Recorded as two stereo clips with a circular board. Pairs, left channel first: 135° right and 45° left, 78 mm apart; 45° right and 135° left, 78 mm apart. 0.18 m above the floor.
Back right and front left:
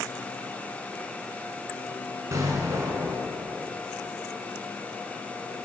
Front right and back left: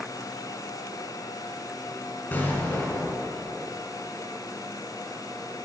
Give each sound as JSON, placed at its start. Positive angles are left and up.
{"t": 2.3, "sound": "an explosion", "azimuth_deg": 10, "distance_m": 1.2}